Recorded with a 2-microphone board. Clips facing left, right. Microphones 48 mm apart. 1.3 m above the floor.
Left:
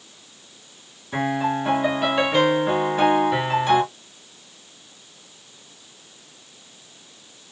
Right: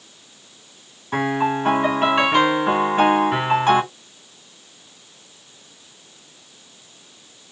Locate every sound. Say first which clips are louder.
1.1 s a piano: right 2 dB; 50° right (ahead or behind), 3.5 m